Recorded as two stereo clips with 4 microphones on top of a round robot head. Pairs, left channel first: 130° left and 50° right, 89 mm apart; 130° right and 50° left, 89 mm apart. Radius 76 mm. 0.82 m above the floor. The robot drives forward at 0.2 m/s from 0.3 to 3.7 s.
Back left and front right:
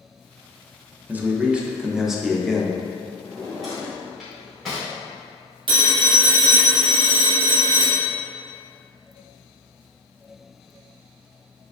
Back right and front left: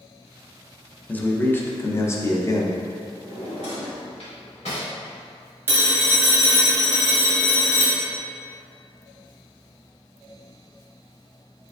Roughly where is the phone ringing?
Ahead.